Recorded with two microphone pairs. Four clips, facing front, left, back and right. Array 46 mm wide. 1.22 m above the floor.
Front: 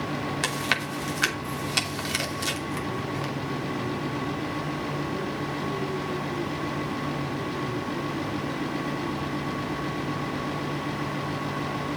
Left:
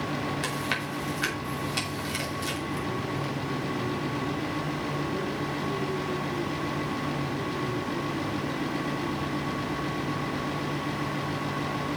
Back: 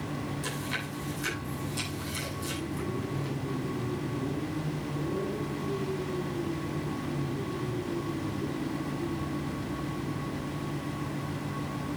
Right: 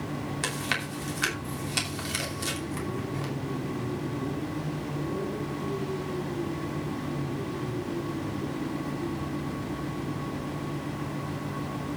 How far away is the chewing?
About 2.5 m.